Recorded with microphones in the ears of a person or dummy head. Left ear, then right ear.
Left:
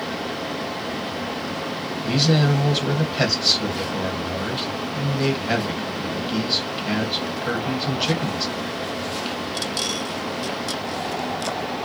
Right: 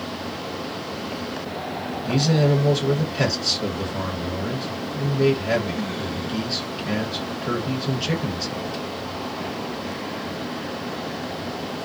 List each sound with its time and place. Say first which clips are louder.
2.0 s a man speaking: left 1 dB; 45° left (ahead or behind), 1.4 m